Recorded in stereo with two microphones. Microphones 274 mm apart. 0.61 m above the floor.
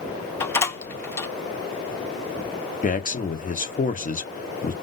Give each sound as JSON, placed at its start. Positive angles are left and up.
{"t": 0.4, "sound": "a door slam", "side_deg": 10, "distance_m": 1.0}
{"t": 2.8, "sound": "a man speaking", "side_deg": 30, "distance_m": 0.9}